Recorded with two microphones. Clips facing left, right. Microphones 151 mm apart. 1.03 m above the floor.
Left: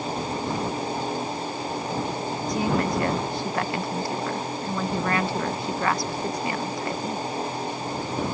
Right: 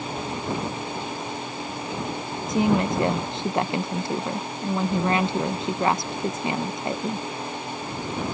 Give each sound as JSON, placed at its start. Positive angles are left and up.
{"t": 2.5, "sound": "a woman speaking", "side_deg": -20}